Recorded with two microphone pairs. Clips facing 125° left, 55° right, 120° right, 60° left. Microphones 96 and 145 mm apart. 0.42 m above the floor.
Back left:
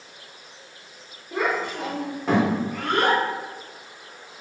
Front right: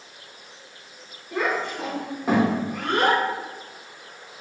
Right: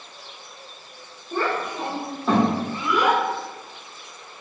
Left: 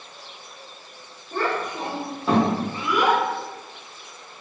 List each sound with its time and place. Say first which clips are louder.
1.3 s a child speaking: even, even; 175° left, 0.8 m; by 3.2 s straight ahead, 1.0 m